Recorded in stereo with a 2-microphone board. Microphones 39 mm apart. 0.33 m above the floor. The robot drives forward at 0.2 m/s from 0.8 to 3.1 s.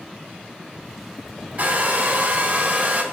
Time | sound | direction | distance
1.6 | a hair dryer | 40° right (ahead or behind) | 2 m